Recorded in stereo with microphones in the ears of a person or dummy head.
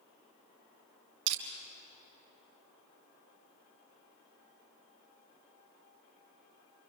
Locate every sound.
1.3 s crushing: 80° right, 4.5 m